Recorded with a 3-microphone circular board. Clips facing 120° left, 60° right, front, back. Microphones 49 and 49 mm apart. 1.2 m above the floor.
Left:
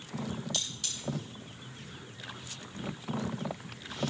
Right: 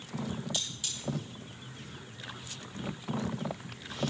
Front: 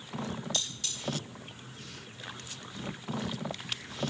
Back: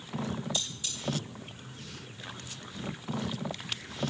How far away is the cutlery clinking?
About 6 m.